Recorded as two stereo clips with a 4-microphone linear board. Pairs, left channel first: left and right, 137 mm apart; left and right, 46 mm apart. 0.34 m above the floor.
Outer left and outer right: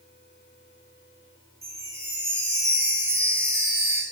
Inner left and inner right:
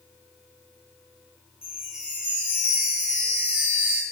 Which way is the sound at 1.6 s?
20° right (ahead or behind).